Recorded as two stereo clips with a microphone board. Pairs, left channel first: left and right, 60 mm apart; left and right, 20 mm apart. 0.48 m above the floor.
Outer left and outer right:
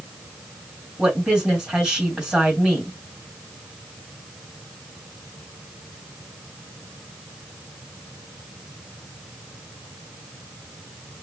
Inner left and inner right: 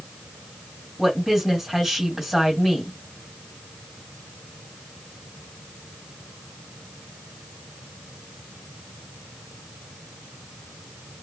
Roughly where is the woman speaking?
Centre.